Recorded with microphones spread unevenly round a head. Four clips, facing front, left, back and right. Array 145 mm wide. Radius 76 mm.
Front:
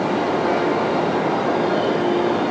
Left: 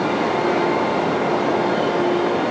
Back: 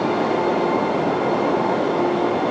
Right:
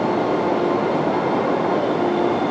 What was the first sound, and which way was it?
Only background noise.